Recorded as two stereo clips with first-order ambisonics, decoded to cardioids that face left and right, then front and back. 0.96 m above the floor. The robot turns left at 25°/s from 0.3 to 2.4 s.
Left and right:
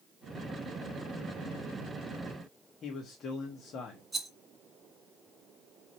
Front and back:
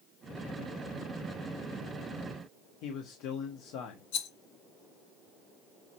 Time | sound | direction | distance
2.8 | a man speaking | 30° left | 1.3 m
4.1 | a rattle | 5° right | 2.5 m